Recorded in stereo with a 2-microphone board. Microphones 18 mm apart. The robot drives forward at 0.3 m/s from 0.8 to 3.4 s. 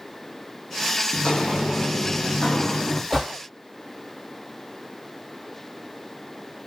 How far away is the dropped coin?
I don't hear a dropped coin.